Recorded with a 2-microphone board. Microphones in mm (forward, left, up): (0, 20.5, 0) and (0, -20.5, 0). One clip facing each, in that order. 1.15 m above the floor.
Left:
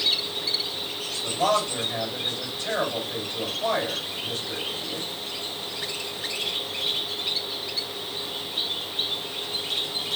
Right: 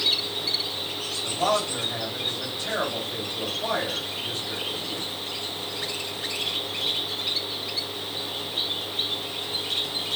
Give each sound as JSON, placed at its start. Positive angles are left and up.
{"t": 1.2, "sound": "a man speaking", "side_deg": 25, "distance_m": 2.5}